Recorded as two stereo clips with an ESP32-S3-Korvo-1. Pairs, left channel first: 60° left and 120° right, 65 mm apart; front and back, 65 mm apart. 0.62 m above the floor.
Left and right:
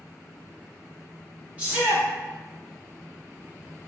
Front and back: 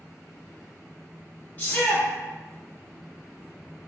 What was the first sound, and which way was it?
A shout, 55° right.